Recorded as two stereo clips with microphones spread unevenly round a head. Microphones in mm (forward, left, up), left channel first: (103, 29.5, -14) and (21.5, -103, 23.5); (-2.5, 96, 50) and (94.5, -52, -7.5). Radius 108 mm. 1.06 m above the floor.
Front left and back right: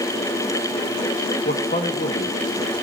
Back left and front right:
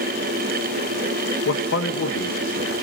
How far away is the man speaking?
About 1.1 m.